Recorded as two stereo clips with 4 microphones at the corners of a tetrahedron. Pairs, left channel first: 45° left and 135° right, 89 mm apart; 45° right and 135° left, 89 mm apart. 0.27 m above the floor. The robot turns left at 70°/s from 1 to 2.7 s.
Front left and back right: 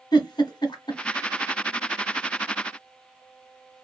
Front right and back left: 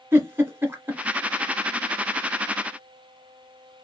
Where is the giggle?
75° left, 1.4 m.